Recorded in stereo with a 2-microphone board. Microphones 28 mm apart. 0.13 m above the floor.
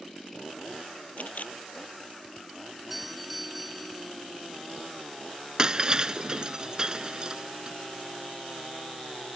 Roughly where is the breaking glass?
Right.